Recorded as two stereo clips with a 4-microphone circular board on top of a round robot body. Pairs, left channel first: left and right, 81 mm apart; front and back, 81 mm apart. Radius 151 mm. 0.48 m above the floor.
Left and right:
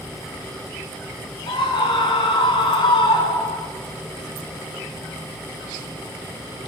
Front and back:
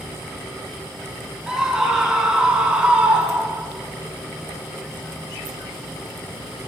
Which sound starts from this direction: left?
A scream, at 1.5 s.